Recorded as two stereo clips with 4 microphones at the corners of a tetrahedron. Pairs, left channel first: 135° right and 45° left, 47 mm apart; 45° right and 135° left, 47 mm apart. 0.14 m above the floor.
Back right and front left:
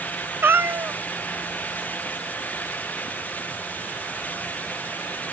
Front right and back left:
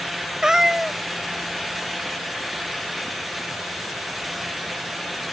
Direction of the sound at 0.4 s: 65° left.